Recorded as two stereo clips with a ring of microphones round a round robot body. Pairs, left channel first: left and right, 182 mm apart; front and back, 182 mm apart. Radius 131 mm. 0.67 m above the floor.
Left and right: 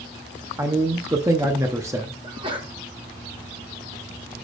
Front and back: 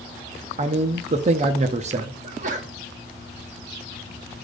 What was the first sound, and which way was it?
A man speaking, 155° right.